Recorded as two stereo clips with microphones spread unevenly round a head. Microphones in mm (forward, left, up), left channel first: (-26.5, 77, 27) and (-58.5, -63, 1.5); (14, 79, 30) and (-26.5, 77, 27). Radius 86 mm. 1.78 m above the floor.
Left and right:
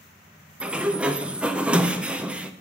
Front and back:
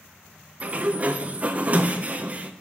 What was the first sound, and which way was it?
A sliding door, 165° left.